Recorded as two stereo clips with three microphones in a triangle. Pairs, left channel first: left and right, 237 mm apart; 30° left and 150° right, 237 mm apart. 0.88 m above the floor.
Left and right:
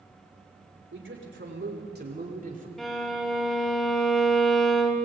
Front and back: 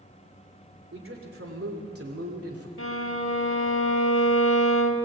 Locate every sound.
0.9 s a man speaking: 120° right, 3.5 m; by 2.7 s 145° right, 3 m
2.8 s a violin: straight ahead, 1.3 m